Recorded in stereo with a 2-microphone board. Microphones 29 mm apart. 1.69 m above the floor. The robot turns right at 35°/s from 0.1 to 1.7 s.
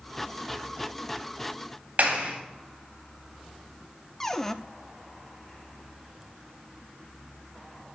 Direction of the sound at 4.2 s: 15° left (ahead or behind).